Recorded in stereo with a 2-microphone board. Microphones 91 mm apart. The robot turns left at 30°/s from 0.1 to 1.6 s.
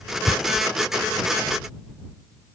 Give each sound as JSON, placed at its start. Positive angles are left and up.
{"t": 0.3, "sound": "tearing paper", "side_deg": 55}